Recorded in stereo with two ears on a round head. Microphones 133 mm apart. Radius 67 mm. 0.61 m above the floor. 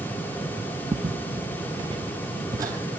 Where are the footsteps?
15° right (ahead or behind), 0.9 m; by 2.8 s 25° right (ahead or behind), 1.2 m.